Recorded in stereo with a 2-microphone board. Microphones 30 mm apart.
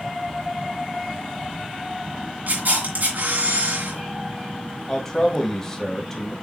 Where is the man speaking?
15° left (ahead or behind), 2 m.